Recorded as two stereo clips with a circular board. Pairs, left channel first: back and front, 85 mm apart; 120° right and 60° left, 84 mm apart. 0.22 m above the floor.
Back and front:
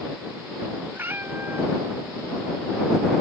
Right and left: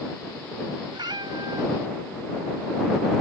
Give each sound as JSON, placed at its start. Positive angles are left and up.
{"t": 0.9, "sound": "a cat meowing", "azimuth_deg": 60}